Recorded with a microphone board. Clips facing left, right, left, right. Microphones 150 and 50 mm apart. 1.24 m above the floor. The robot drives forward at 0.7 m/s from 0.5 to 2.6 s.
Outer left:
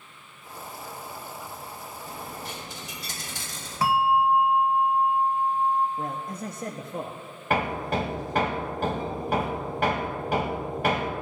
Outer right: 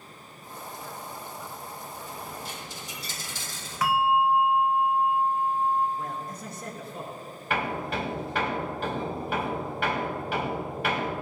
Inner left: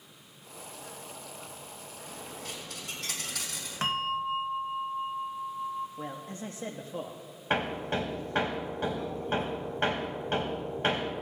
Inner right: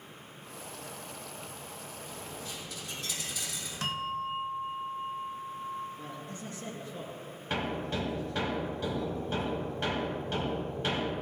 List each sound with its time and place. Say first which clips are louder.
2.1 s a dropped coin: outer left 3 dB, inner left 2 dB; 75° left (ahead or behind), 3.5 m
3.8 s a bell: outer left 1 dB, inner left 4 dB; 30° left (ahead or behind), 0.9 m
6.0 s a man speaking: outer left 3 dB, inner left 3 dB; 55° left (ahead or behind), 0.9 m
7.5 s hammering: outer left 3 dB, inner left 3 dB; 45° left (ahead or behind), 2 m